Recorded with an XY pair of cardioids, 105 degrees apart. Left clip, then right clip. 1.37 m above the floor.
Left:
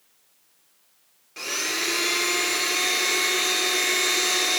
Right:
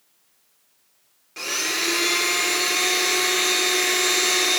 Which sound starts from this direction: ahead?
A blender, at 1.4 s.